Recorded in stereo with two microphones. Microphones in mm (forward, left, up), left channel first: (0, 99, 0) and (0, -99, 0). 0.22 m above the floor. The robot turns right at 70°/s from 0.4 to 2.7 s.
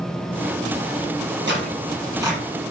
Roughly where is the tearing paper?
Right.